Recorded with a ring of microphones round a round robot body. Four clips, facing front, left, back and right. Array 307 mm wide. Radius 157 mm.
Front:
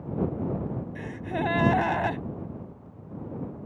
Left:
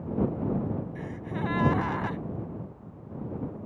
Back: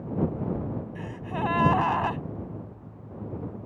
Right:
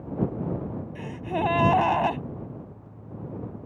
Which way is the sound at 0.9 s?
55° right.